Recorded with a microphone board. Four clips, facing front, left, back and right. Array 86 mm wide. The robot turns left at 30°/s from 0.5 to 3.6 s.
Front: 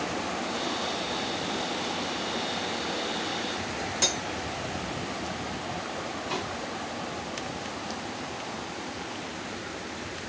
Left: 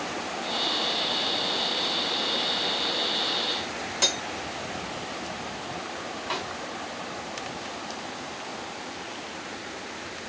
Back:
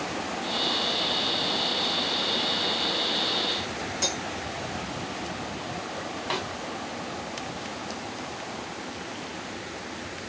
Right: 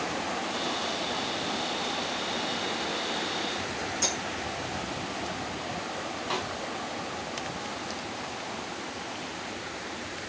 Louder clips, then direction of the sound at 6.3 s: Even, back 3 dB; 165° left.